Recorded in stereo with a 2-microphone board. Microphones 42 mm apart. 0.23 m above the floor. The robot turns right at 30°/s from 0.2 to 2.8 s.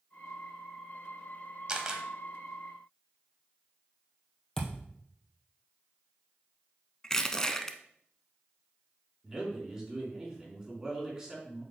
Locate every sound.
1.7 s a camera shutter: 20° right (ahead or behind), 1.1 m
4.6 s a thud: 15° left (ahead or behind), 1.8 m
7.0 s crushing: 15° left (ahead or behind), 0.6 m
9.2 s a man speaking: 15° right (ahead or behind), 3 m